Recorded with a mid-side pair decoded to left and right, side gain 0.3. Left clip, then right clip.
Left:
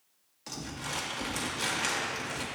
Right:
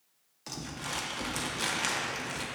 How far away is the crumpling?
About 1.7 m.